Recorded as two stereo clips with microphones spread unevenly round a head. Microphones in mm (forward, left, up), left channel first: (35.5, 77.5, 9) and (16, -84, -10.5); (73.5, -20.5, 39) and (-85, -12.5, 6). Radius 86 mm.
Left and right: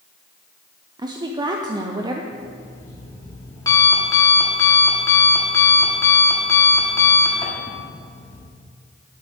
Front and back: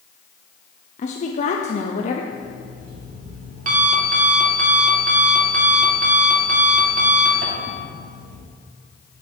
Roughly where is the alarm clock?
Behind left.